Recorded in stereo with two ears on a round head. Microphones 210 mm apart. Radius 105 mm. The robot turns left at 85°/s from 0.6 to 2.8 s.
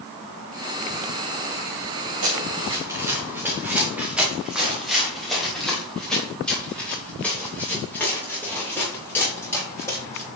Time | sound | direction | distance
2.2 | running footsteps | 65° right (ahead or behind) | 4 m